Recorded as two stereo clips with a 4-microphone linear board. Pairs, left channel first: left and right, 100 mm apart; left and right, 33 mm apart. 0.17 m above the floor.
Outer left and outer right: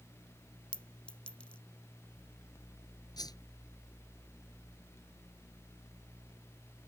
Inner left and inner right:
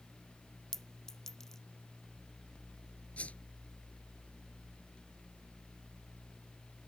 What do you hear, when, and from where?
0.7 s a clink: 10° left (ahead or behind)
3.2 s a whoosh: 40° left (ahead or behind)